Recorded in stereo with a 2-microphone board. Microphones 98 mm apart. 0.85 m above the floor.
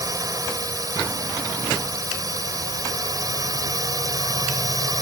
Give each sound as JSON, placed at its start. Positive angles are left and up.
{"t": 0.0, "sound": "a drone", "side_deg": -35}